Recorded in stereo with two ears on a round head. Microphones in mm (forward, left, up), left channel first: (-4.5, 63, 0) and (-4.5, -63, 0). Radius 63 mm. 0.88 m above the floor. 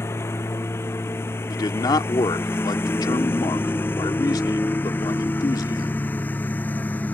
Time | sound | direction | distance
0.0 | a lawn mower | 20° left (ahead or behind) | ?
1.5 | a man speaking | 30° left (ahead or behind) | ?